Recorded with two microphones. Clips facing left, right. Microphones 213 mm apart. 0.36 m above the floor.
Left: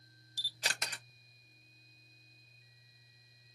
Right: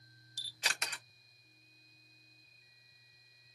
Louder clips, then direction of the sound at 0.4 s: Left 1 dB; 35° left (ahead or behind).